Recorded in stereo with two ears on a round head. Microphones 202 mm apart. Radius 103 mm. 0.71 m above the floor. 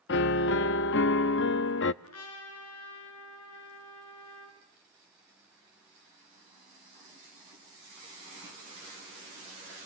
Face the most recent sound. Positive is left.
turn(degrees=80)